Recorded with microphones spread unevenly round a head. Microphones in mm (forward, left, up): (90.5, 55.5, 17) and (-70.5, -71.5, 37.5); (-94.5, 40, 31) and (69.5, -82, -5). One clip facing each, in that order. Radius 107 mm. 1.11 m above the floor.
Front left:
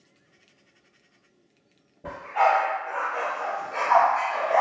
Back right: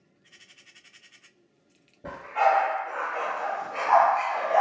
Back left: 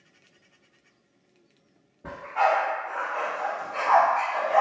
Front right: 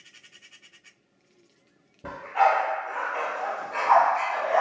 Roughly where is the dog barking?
Ahead right.